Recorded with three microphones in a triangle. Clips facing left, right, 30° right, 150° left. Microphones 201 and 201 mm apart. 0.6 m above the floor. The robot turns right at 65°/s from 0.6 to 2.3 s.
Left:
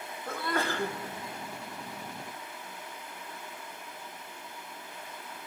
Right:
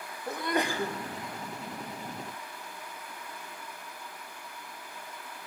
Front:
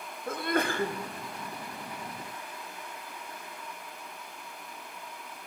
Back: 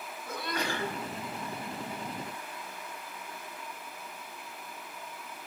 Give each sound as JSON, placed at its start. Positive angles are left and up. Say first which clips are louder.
{"t": 0.3, "sound": "a sneeze", "louder": "right 2 dB, front 6 dB", "azimuth_deg": -20, "distance_m": 0.9}